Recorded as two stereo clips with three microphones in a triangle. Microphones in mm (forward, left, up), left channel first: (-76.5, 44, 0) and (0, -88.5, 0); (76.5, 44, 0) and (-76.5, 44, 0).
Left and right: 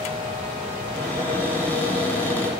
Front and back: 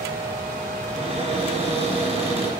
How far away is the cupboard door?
About 1.4 m.